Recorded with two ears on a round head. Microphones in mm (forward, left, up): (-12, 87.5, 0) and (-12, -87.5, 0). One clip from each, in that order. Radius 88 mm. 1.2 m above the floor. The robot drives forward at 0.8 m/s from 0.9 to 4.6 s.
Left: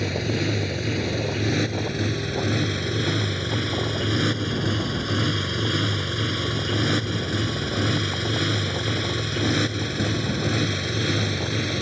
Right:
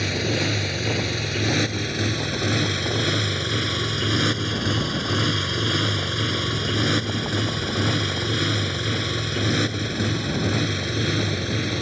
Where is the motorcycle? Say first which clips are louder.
Right 2 dB; 25° right (ahead or behind); by 11.8 s 5° left (ahead or behind).